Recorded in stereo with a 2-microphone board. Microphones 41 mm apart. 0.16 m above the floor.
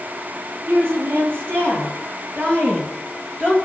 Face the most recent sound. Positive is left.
turn(degrees=-50)  # may be behind; listen again after turning